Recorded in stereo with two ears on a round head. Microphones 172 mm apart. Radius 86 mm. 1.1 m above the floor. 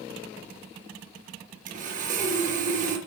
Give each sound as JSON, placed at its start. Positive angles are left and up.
{"t": 1.7, "sound": "sawing", "side_deg": -45, "distance_m": 4.5}